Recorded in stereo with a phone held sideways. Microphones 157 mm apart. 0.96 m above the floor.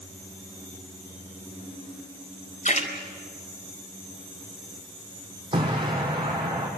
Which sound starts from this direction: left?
A splash, at 2.6 s.